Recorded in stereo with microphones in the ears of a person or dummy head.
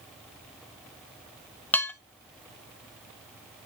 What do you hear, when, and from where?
1.7 s dishes clattering: 5° left (ahead or behind), 0.6 m